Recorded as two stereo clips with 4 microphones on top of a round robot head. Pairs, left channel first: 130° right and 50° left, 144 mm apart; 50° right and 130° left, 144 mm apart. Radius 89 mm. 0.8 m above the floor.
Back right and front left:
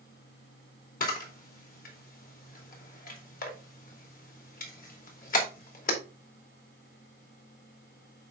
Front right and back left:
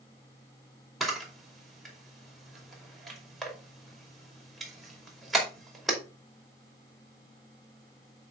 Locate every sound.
1.0 s a camera shutter: 140° right, 2.5 m